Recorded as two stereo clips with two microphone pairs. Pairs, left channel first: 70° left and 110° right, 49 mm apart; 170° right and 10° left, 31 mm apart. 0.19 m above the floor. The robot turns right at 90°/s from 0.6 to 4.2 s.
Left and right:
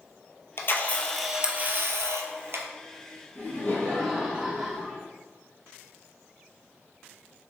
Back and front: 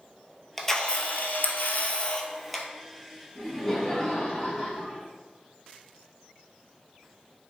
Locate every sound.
0.6 s a camera shutter: 105° left, 0.6 m; by 2.6 s 70° right, 0.6 m
3.4 s laughter: 90° left, 1.6 m; by 5.1 s 165° left, 1.6 m